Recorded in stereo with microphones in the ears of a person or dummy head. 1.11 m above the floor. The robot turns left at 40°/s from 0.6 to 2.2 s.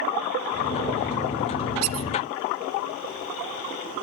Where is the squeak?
75° right (ahead or behind), 0.6 m; by 2.1 s 70° right (ahead or behind), 0.6 m.